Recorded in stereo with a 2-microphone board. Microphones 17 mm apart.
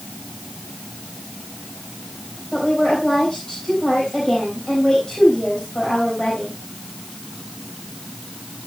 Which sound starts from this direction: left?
A woman speaking, at 2.5 s.